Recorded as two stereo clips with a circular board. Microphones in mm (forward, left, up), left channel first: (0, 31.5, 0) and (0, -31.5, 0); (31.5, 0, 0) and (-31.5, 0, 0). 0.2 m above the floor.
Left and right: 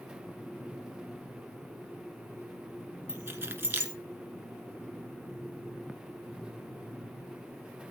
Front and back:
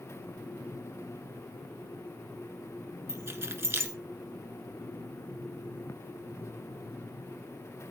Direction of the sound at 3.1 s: 140° right.